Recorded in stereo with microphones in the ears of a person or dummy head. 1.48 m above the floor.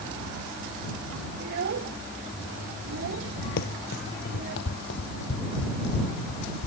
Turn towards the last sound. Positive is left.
turn(degrees=75)  # may be behind; listen again after turning